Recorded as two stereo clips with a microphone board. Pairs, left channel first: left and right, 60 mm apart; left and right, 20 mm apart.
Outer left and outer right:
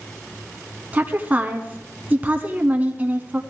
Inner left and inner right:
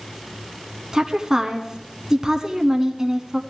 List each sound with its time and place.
0.9 s a woman speaking: 25° right (ahead or behind), 1.2 m